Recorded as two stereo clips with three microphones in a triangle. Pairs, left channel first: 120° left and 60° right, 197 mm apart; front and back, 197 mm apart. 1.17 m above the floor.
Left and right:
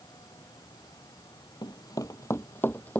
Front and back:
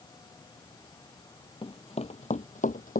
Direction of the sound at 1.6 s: 55° left.